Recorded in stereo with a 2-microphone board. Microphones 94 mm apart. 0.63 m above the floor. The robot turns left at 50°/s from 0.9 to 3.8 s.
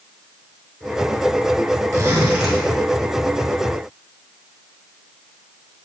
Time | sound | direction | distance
1.9 | a zipper | 145° right | 5 m